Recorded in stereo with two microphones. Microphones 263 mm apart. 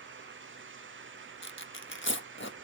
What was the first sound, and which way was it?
Tearing paper, 45° left (ahead or behind).